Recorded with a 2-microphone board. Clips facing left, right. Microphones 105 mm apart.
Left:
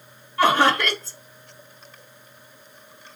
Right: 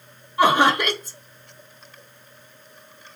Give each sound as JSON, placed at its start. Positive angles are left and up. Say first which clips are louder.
{"t": 0.4, "sound": "laughter", "louder": "right 1 dB", "side_deg": -15, "distance_m": 1.0}